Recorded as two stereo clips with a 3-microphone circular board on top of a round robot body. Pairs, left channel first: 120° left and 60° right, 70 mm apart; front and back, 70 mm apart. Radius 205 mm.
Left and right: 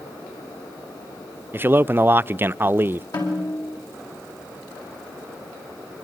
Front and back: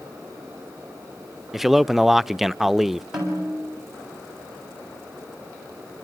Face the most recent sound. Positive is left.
turn(degrees=95)